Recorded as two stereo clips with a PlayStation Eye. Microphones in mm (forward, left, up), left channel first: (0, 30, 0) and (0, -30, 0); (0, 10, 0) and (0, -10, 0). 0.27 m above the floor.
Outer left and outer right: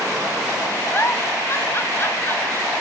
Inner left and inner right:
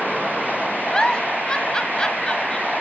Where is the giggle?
45° left (ahead or behind), 1.0 m.